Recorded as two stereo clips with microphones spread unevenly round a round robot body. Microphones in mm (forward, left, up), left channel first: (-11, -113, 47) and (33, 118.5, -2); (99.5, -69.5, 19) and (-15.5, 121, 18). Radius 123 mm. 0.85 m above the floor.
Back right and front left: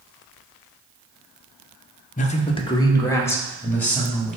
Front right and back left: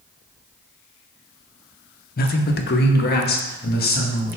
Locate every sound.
2.2 s a man speaking: 45° right, 0.6 m; by 4.4 s 10° right, 1.9 m